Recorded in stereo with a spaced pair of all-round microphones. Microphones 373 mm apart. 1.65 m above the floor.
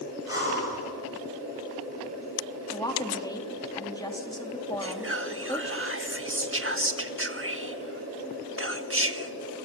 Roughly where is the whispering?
Right.